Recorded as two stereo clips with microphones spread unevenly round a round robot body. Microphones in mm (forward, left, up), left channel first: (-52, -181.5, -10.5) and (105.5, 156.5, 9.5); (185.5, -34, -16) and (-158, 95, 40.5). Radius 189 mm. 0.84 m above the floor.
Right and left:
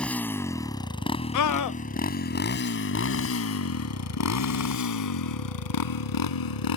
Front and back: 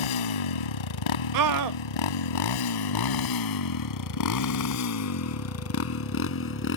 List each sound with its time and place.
0.0 s a motorcycle: 25° right; by 6.8 s 85° right
1.3 s a scream: 155° right